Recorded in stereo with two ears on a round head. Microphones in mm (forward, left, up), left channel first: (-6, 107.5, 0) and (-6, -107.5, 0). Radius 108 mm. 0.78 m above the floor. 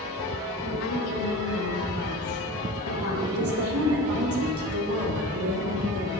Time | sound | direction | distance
0.6 | a woman speaking | 60° left (ahead or behind) | 3.5 m
3.3 | a woman speaking | 65° right (ahead or behind) | 2.5 m